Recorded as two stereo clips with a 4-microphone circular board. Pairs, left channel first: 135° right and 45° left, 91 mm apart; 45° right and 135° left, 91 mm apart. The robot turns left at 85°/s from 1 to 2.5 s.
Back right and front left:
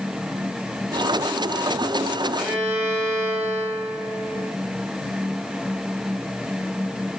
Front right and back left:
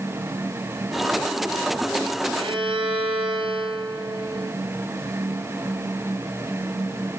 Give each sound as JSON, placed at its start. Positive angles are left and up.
{"t": 2.4, "sound": "a violin", "azimuth_deg": 125, "distance_m": 3.5}